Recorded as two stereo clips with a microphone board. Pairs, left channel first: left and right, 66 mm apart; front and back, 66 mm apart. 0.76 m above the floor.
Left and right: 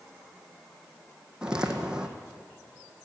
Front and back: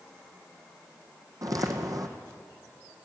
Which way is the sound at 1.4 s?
165° right.